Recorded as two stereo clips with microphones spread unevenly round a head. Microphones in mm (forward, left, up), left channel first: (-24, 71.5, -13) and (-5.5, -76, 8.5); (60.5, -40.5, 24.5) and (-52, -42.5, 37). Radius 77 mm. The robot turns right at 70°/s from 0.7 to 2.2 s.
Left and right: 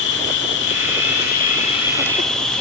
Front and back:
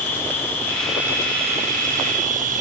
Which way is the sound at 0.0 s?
80° left.